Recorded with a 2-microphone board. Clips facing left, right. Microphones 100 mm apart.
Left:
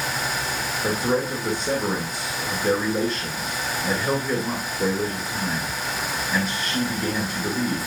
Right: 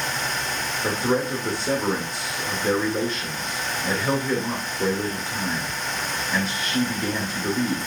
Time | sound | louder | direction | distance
0.8 | a man speaking | even | centre (ahead or behind) | 2 m